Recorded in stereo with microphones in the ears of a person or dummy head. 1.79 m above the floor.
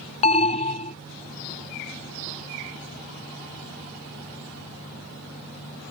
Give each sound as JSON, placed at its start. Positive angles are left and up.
{"t": 0.2, "sound": "an alarm", "side_deg": 30}